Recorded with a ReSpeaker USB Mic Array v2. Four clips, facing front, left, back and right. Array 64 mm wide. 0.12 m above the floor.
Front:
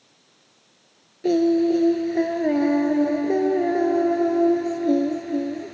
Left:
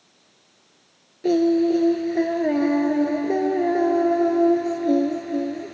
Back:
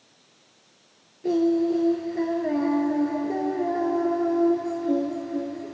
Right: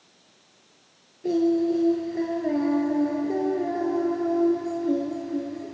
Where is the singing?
50° left, 1.3 m.